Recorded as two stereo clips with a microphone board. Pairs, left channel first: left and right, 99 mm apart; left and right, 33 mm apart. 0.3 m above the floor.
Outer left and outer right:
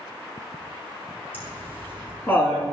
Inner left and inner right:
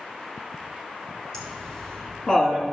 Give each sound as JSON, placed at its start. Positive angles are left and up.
{"t": 1.3, "sound": "laughter", "side_deg": 20, "distance_m": 4.0}